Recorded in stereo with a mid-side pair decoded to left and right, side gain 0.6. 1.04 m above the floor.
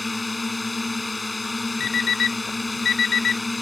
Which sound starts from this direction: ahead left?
An alarm clock, at 1.8 s.